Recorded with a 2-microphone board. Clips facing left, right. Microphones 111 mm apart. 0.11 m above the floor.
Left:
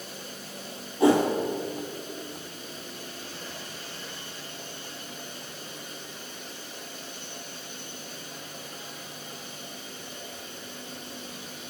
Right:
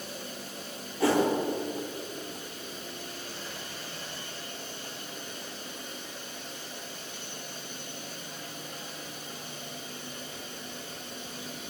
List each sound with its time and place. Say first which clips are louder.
1.0 s a whoosh: left 4 dB; 25° left (ahead or behind), 3.5 m